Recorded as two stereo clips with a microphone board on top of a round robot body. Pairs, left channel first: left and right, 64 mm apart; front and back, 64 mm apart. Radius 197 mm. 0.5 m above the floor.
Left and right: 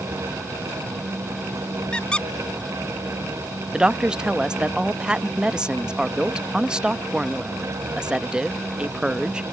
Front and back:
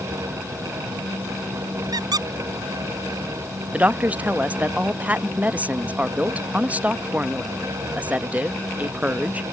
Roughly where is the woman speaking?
Behind right.